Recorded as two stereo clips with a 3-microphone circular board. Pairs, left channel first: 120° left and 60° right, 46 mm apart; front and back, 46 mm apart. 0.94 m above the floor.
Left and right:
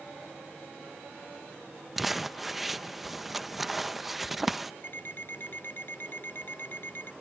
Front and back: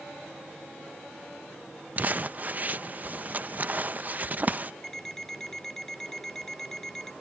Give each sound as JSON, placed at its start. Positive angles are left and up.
{"t": 2.0, "sound": "crumpling", "azimuth_deg": -145}
{"t": 4.8, "sound": "an alarm clock", "azimuth_deg": 80}